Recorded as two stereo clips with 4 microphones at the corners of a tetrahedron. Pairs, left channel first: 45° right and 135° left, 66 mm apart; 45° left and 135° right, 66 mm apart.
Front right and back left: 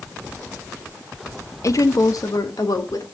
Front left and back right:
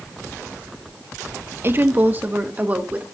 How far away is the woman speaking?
About 0.5 m.